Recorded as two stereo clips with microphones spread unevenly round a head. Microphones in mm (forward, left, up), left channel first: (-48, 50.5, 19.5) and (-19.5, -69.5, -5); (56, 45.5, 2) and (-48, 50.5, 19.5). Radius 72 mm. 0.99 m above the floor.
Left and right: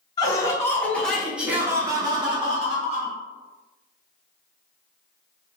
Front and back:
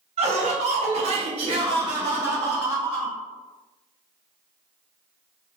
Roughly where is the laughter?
Behind.